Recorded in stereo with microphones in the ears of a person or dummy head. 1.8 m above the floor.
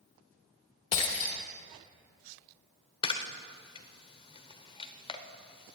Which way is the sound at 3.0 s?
25° left (ahead or behind).